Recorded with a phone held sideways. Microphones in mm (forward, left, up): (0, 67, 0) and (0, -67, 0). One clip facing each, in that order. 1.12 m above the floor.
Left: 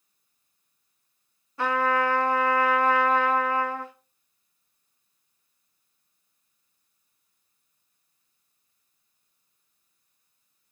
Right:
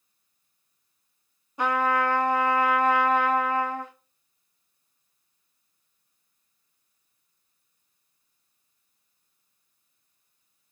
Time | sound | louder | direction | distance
1.6 | a trumpet | even | 20° right (ahead or behind) | 1.0 m